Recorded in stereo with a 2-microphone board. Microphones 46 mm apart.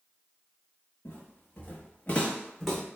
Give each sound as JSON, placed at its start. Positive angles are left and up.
{"t": 1.1, "sound": "footsteps", "side_deg": 70, "distance_m": 1.1}